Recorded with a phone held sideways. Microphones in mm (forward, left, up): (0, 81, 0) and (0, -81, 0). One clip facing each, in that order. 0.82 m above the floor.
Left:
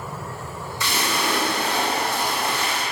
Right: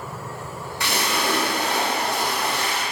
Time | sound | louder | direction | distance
0.8 | a splash | right 1 dB | 65° right (ahead or behind) | 0.6 m